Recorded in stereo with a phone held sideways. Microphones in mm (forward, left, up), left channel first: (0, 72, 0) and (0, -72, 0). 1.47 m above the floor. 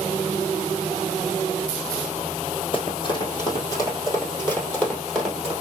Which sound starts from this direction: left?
Running footsteps, at 2.7 s.